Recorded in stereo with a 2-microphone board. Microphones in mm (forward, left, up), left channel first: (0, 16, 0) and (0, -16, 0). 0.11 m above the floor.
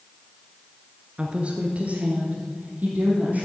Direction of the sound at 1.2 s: 30° right (ahead or behind).